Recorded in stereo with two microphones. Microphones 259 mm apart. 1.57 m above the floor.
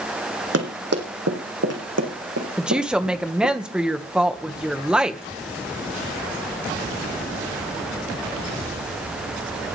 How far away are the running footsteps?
About 4 m.